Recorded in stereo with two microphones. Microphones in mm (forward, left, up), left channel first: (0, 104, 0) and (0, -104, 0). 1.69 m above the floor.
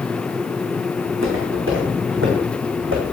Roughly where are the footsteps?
Right.